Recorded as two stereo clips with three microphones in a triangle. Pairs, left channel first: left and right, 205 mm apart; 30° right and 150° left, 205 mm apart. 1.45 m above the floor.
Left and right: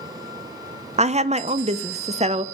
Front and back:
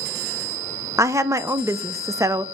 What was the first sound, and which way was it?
A woman speaking, 135° right.